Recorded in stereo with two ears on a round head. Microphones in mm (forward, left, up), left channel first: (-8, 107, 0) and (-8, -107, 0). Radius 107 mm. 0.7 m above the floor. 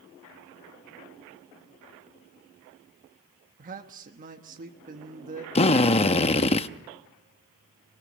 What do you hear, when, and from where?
3.6 s a man speaking: 35° right (ahead or behind), 1.3 m
5.5 s a drill: 25° left (ahead or behind), 0.7 m